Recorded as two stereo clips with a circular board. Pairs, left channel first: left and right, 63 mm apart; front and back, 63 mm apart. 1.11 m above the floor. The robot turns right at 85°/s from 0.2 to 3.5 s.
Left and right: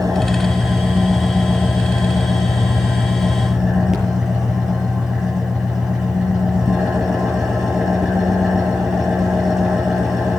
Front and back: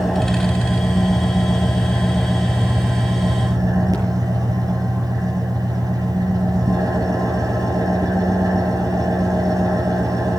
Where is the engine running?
90° right, 8.5 m; by 10.4 s 170° right, 8.5 m.